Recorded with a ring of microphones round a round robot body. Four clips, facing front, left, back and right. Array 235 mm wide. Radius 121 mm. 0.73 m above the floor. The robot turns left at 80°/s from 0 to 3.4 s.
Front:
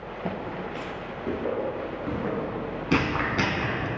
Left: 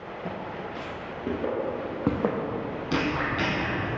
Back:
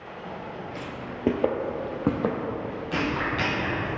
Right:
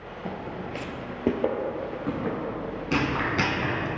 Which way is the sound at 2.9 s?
10° right.